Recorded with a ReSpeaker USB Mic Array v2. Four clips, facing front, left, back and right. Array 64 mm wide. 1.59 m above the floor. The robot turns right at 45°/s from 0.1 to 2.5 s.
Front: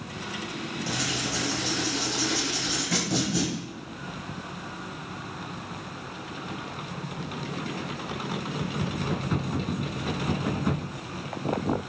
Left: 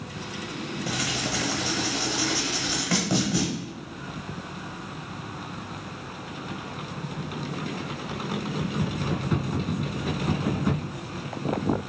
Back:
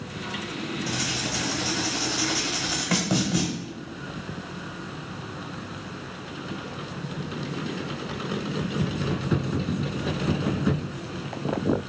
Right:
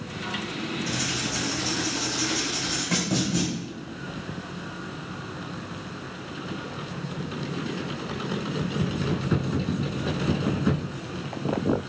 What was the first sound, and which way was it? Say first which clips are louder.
Writing: left 1 dB, back 1 dB; 75° left.